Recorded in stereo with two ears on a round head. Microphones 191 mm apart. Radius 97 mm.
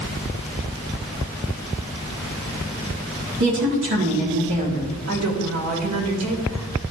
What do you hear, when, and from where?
3.4 s a woman speaking: 60° right (ahead or behind), 2.0 m
5.1 s a woman speaking: 70° right (ahead or behind), 2.5 m